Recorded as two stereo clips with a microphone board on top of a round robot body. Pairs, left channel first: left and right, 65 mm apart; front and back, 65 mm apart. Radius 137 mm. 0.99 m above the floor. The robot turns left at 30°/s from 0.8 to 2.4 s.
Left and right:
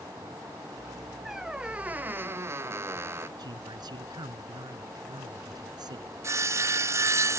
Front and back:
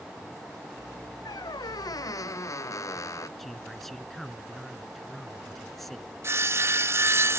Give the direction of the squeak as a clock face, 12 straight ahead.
12 o'clock.